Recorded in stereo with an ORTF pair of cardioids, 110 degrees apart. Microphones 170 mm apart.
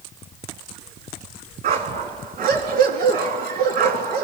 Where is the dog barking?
65° right, 4 m.